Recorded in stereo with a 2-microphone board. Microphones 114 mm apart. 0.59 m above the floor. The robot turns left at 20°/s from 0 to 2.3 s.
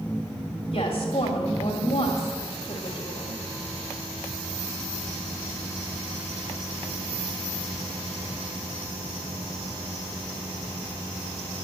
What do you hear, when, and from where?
0.7 s a woman speaking: 110° left, 1.7 m; by 3.4 s 80° left, 1.7 m